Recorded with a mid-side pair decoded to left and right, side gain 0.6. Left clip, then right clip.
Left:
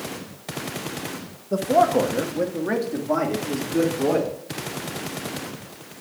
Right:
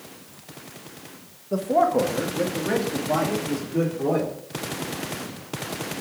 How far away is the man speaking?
About 1.0 m.